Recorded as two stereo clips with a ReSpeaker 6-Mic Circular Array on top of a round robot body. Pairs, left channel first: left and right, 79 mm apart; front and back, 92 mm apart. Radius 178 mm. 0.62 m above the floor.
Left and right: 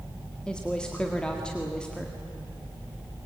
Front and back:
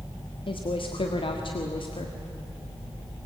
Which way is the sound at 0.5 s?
10° left.